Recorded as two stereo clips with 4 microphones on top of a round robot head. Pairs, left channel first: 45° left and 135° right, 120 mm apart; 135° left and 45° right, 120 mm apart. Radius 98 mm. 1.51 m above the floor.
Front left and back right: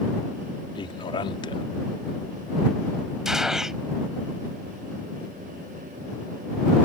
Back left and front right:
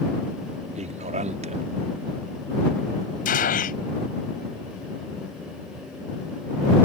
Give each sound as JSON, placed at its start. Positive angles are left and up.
{"t": 0.8, "sound": "a man speaking", "azimuth_deg": -10}
{"t": 3.2, "sound": "a gunshot", "azimuth_deg": 135}